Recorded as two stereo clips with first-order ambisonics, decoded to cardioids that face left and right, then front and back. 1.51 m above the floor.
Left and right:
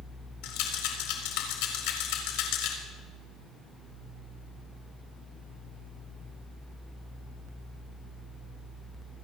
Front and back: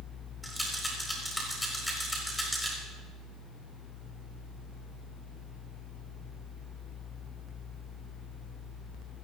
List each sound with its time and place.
0.4 s a rattle: 85° left, 4 m